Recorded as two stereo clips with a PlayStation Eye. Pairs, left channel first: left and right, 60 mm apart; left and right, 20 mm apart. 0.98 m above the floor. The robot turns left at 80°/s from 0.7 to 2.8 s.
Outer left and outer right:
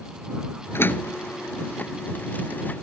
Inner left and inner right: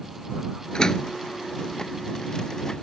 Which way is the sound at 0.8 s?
40° left (ahead or behind).